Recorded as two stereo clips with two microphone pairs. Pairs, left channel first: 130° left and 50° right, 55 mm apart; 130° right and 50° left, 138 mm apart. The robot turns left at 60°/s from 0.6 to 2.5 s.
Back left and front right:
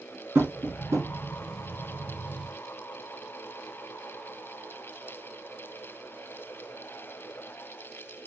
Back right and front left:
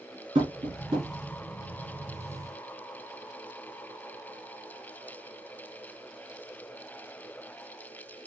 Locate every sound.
0.3 s tapping: straight ahead, 3 m; by 1.1 s 30° right, 3 m